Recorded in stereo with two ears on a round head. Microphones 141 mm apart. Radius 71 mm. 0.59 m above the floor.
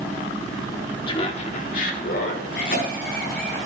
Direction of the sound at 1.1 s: 30° left (ahead or behind).